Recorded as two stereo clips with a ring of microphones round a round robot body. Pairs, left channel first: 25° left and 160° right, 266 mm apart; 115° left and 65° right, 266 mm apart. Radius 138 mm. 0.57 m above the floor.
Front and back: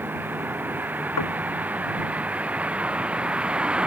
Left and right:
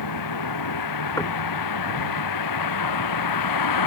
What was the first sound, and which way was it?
A vehicle, 120° left.